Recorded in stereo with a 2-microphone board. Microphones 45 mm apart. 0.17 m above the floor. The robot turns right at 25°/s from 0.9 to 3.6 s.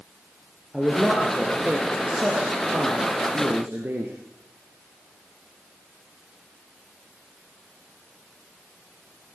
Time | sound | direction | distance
0.7 | a man speaking | 175° left | 2.5 m